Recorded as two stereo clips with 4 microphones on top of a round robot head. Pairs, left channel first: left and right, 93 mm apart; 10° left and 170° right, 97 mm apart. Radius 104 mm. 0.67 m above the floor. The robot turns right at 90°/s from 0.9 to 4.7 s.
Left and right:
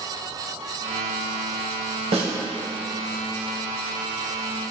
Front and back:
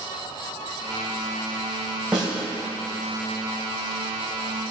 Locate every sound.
2.1 s a snare drum: 90° right, 2.5 m; by 2.3 s 75° right, 2.5 m